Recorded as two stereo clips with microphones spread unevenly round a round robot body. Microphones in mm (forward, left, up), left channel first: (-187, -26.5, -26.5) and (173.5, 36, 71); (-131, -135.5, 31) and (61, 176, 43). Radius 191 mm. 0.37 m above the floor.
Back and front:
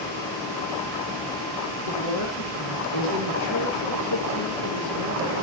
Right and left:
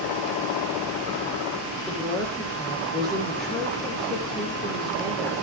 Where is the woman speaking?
150° left, 7.5 m.